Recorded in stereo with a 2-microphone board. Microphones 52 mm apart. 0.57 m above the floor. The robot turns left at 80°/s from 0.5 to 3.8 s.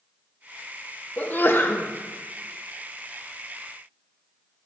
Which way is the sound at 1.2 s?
145° left.